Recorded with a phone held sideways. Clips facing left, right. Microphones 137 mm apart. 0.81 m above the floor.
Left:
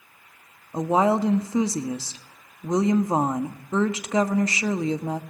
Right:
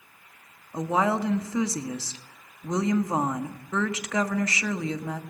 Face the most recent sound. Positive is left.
turn(degrees=25)  # may be behind; listen again after turning